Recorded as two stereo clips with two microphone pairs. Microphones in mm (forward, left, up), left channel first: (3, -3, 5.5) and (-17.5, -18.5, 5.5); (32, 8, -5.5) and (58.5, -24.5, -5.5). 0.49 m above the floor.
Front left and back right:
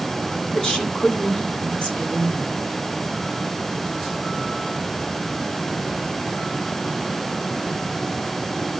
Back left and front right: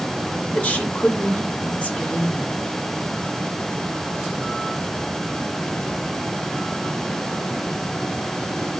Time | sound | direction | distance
0.5 | a woman speaking | 90° left | 1.6 m